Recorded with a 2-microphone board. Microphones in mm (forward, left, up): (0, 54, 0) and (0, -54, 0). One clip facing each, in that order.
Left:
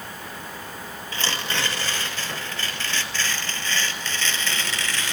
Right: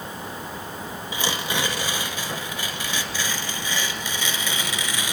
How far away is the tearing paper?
About 2.5 m.